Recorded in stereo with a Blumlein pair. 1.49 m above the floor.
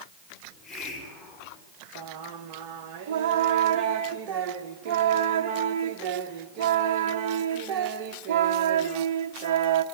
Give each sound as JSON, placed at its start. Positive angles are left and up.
{"t": 0.4, "sound": "a hiss", "azimuth_deg": 15, "distance_m": 5.5}
{"t": 1.9, "sound": "singing", "azimuth_deg": -45, "distance_m": 1.2}